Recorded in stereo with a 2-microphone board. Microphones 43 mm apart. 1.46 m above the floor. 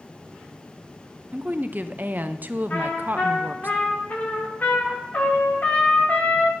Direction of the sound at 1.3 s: 45° right (ahead or behind).